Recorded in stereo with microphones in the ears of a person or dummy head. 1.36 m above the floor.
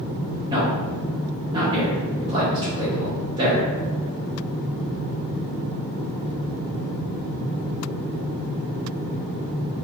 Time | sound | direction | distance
0.5 | a man speaking | 30° right (ahead or behind) | 0.6 m